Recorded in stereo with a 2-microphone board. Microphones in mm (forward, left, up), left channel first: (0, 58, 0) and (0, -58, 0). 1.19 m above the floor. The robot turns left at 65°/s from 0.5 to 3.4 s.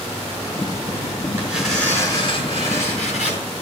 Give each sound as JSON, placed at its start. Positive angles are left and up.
{"t": 1.4, "sound": "tearing paper", "azimuth_deg": -160, "distance_m": 6.0}